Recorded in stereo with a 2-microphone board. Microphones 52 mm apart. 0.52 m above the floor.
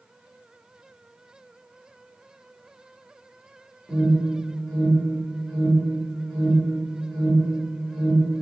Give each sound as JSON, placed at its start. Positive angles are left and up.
{"t": 3.9, "sound": "an alarm", "side_deg": 10, "distance_m": 1.4}